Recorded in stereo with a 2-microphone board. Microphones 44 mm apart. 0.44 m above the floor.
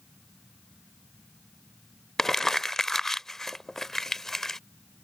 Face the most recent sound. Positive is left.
turn(degrees=10)  # may be behind; listen again after turning